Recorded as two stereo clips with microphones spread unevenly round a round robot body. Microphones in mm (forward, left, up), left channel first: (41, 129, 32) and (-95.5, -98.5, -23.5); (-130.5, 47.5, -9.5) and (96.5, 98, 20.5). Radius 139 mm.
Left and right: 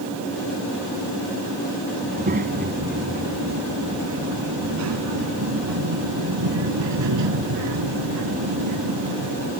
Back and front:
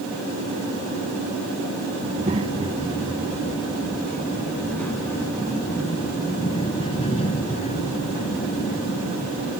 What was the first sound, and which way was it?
A child speaking, 55° right.